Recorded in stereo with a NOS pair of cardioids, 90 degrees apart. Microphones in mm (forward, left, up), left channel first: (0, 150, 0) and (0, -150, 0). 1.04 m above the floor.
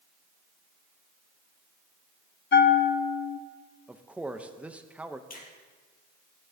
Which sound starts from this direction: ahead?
A man speaking, at 3.9 s.